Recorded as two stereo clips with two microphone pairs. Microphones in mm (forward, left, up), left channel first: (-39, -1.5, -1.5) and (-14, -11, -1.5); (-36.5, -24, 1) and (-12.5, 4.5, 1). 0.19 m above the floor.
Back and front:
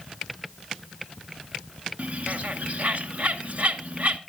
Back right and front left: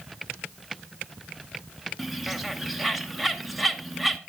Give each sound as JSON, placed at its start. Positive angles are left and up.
{"t": 2.0, "sound": "a bird", "azimuth_deg": -40, "distance_m": 0.7}